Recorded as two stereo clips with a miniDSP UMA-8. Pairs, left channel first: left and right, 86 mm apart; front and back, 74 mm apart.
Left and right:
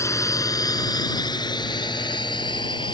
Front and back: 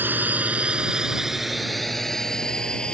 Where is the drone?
125° left; by 3.0 s 75° left.